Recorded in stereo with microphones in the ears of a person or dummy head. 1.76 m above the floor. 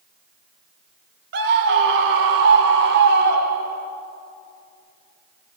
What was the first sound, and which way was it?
A scream, 55° right (ahead or behind).